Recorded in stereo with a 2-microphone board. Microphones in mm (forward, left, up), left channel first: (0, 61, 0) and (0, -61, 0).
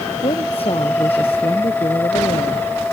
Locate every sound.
0.2 s a woman speaking: 50° left (ahead or behind)